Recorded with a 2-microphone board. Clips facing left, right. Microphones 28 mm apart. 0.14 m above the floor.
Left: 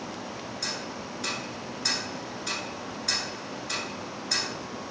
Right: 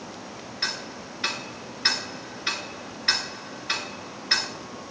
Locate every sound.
0.6 s ticking: 45° right (ahead or behind), 1.5 m